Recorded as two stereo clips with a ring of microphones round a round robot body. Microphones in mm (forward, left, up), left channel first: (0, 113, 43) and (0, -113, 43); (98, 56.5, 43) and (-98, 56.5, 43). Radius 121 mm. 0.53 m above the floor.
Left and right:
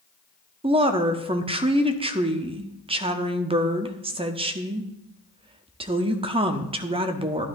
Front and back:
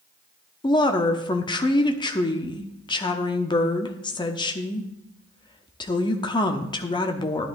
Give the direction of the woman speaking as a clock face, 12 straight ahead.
2 o'clock.